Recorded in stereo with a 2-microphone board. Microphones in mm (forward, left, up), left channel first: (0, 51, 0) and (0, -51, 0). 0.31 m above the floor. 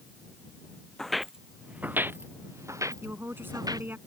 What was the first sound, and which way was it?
Footsteps, 5° left (ahead or behind).